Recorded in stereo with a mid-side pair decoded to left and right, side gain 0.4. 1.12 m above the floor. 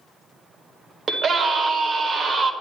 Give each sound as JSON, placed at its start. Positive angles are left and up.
{"t": 1.1, "sound": "a scream", "azimuth_deg": -60, "distance_m": 1.5}